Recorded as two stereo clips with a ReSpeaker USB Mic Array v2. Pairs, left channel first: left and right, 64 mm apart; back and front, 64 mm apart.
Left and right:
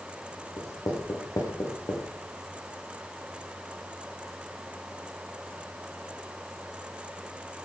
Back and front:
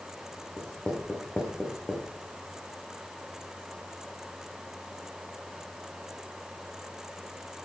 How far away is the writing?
About 6.5 m.